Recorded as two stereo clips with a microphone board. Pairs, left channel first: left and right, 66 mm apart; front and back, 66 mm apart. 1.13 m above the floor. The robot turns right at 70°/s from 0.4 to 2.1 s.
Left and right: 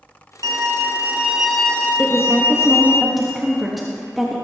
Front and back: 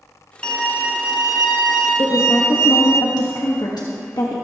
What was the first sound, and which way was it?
A violin, 75° right.